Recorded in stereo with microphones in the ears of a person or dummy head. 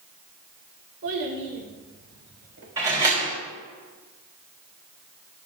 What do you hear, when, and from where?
1.0 s a child speaking: 65° right (ahead or behind), 2 m; by 2.7 s 70° right (ahead or behind), 4.5 m
2.8 s a door slam: 20° right (ahead or behind), 3 m